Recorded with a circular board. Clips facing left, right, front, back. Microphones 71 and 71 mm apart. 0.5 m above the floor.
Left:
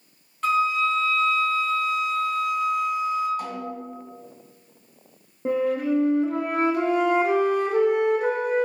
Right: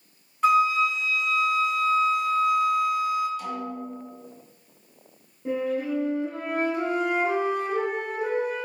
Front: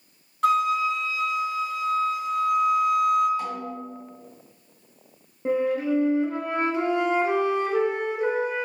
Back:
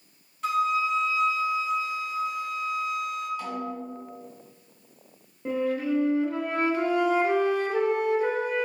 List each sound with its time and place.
0.4 s a flute: 15° right, 0.9 m
3.4 s a snare drum: 65° left, 1.5 m
5.5 s a flute: 70° left, 0.7 m